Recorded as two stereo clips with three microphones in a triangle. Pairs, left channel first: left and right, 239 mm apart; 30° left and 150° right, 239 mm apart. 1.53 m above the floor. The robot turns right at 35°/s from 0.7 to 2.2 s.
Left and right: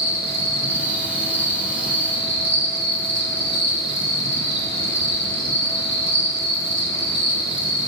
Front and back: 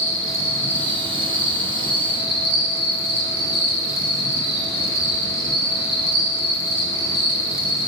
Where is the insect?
170° right, 3 m; by 7.9 s 115° right, 3 m.